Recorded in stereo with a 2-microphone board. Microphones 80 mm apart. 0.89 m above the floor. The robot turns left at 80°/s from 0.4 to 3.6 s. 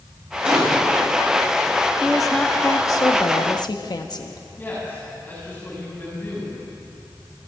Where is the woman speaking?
165° right, 1.1 m; by 4.4 s 70° left, 1.1 m.